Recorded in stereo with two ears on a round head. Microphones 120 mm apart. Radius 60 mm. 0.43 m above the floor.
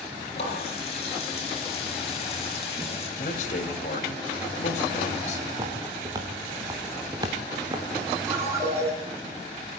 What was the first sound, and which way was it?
A running tap, 45° left (ahead or behind).